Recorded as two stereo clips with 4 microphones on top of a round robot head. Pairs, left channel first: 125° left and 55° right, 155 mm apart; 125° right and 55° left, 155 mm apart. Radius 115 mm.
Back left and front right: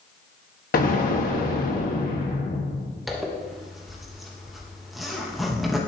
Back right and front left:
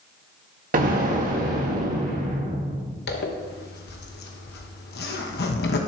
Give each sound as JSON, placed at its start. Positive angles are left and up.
{"t": 0.7, "sound": "an explosion", "azimuth_deg": 95, "distance_m": 1.4}
{"t": 3.1, "sound": "a zipper", "azimuth_deg": -145, "distance_m": 1.0}